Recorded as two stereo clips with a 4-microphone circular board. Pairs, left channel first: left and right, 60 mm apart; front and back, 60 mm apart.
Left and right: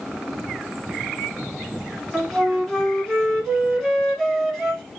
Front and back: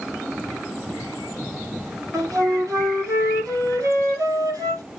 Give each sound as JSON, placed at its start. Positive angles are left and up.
{"t": 2.1, "sound": "a flute", "azimuth_deg": -165, "distance_m": 3.0}